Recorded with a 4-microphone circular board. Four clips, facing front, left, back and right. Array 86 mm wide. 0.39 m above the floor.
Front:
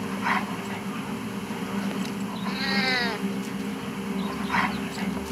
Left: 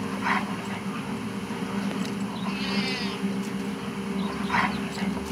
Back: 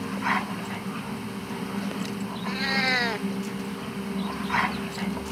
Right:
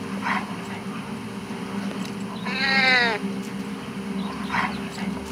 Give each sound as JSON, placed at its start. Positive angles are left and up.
{"t": 2.5, "sound": "a cat meowing", "azimuth_deg": -95}